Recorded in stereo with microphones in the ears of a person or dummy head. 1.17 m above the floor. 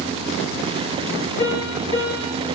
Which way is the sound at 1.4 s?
40° left (ahead or behind).